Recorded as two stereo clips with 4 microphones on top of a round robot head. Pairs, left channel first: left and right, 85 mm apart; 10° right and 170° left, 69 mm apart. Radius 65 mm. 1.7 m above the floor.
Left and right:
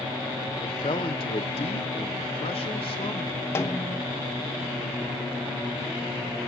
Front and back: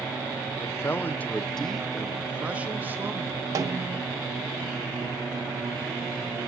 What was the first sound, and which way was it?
A man speaking, 40° left.